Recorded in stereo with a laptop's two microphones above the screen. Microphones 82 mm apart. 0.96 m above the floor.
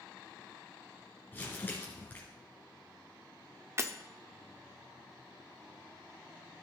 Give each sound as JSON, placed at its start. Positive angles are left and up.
{"t": 1.3, "sound": "crumpling", "side_deg": 25, "distance_m": 2.0}
{"t": 3.8, "sound": "breaking glass", "side_deg": -35, "distance_m": 0.6}